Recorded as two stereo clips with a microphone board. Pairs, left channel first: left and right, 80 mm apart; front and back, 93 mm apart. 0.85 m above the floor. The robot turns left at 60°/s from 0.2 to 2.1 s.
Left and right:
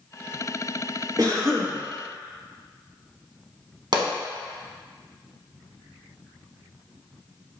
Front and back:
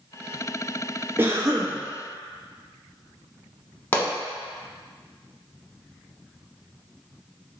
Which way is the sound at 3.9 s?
75° right.